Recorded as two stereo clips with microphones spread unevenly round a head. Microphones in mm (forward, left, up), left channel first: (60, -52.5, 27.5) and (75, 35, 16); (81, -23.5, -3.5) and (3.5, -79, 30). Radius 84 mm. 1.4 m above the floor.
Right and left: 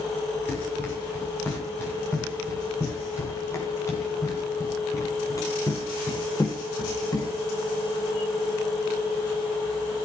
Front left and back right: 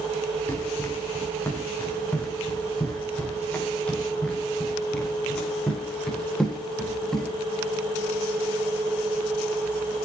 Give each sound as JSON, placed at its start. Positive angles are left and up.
{"t": 0.5, "sound": "running footsteps", "azimuth_deg": -35, "distance_m": 10.0}